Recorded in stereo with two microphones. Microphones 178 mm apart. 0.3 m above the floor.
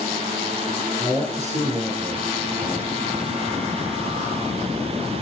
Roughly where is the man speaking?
Right.